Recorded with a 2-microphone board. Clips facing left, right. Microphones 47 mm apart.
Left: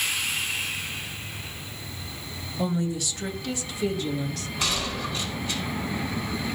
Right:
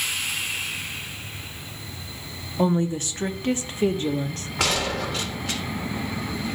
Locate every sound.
2.6 s a woman speaking: 35° right (ahead or behind), 0.8 m
4.6 s a gunshot: 80° right, 1.3 m